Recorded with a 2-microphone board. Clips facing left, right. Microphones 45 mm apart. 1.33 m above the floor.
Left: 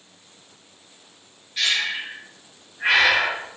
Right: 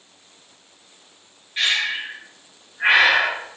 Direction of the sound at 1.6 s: 30° right (ahead or behind).